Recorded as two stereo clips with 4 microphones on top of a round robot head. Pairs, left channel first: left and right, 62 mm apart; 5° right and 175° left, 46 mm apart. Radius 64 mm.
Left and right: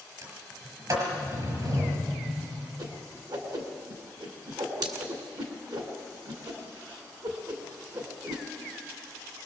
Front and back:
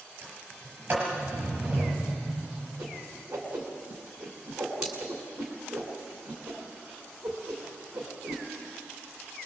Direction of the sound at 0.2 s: 120° right.